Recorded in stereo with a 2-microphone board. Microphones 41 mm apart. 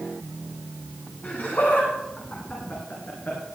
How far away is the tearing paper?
I don't hear tearing paper.